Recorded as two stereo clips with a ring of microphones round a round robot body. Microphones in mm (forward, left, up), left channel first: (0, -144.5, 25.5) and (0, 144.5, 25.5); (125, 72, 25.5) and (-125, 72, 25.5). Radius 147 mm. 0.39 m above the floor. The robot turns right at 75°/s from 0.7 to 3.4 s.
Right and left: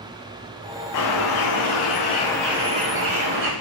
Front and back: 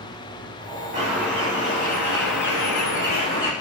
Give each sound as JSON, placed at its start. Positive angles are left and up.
{"t": 0.9, "sound": "a bird", "azimuth_deg": -115, "distance_m": 5.5}